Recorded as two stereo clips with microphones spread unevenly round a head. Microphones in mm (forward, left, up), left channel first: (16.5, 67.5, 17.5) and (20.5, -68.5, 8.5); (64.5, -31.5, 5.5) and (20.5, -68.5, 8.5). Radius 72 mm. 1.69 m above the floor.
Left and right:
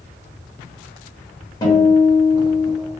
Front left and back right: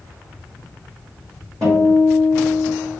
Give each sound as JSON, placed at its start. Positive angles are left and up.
{"t": 1.6, "sound": "a guitar", "azimuth_deg": 155, "distance_m": 1.1}